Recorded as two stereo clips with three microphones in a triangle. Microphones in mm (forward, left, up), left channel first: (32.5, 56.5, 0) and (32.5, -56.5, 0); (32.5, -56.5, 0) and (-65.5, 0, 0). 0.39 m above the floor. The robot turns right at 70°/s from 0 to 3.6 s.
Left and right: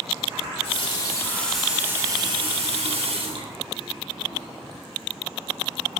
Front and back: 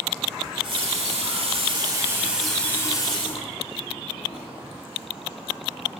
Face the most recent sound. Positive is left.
turn(degrees=-40)